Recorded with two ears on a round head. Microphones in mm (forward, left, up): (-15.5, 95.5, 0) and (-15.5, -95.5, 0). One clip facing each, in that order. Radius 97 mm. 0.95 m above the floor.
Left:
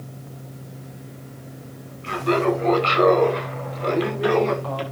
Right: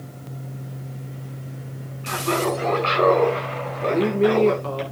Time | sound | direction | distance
2.0 | laughter | 25° left (ahead or behind) | 8.5 m
3.8 | a woman speaking | 35° right (ahead or behind) | 3 m